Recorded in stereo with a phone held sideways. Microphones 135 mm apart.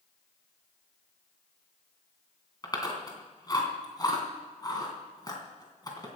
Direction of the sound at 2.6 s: 30° left (ahead or behind).